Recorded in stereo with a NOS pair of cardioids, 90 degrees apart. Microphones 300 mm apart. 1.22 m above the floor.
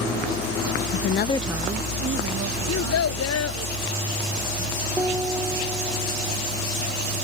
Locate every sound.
0.9 s a woman speaking: 65° left; by 3.7 s 55° right
2.7 s a child speaking: 55° left
5.0 s a piano: 10° right